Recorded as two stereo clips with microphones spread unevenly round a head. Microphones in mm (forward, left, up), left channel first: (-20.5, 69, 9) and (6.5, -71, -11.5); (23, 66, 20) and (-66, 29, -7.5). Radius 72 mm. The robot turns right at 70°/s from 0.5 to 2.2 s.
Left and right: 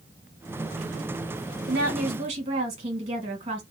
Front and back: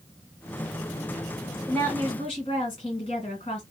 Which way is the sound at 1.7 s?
65° right.